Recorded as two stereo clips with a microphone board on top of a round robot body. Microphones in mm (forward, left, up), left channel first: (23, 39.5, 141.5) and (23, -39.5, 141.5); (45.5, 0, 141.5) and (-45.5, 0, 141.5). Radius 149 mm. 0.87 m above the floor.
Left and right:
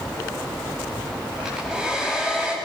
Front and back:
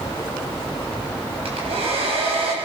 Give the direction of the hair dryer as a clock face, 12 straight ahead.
6 o'clock.